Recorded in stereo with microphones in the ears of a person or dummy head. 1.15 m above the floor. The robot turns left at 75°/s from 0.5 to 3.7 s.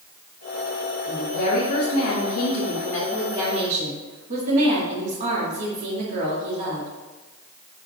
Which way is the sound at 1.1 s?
155° left.